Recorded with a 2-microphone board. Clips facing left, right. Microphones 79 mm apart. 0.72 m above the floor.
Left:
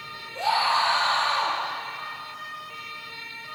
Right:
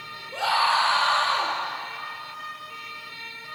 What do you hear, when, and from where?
0.3 s a scream: 75° right (ahead or behind), 8 m